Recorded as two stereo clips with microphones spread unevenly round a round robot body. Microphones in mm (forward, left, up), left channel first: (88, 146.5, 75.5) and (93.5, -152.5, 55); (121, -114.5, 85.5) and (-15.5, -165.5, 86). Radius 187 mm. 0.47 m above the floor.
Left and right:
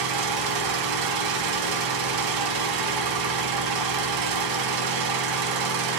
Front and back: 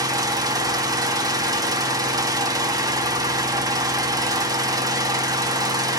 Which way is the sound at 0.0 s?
90° right.